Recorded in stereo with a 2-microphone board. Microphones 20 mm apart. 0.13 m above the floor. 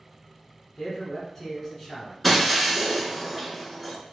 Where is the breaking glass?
Centre (ahead or behind), 1.0 m.